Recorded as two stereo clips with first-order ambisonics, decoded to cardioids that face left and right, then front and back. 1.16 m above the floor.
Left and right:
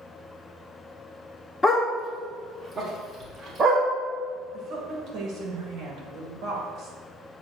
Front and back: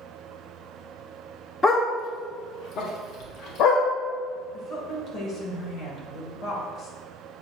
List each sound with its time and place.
1.6 s a dog barking: 40° left, 0.7 m; by 3.8 s 25° right, 1.5 m
4.5 s a woman speaking: 45° right, 1.9 m